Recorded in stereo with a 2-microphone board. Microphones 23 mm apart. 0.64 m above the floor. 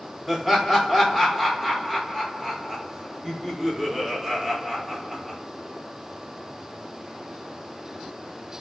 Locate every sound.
0.3 s laughter: 15° right (ahead or behind), 1.1 m